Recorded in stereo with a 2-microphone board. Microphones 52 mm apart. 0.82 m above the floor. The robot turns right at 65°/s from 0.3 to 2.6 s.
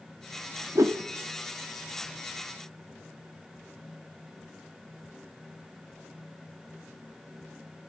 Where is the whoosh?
75° right (ahead or behind), 0.9 m; by 1.0 s 55° right (ahead or behind), 0.9 m.